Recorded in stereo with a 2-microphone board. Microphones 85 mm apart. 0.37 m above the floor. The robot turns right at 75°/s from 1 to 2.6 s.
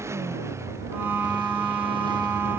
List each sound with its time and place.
0.0 s a motorcycle: 145° right; by 2.6 s 25° right